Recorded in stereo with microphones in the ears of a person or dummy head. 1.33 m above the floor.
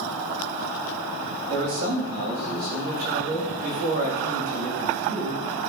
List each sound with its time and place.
1.5 s a man speaking: 50° right (ahead or behind), 6 m